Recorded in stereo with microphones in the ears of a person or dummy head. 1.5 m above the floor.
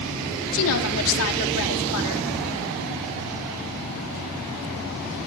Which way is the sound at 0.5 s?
85° left.